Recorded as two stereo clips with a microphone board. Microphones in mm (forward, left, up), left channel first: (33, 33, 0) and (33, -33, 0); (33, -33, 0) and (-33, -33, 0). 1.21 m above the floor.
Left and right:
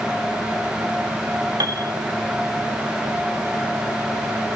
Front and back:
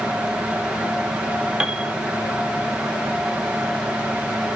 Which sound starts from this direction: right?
A piano, at 1.6 s.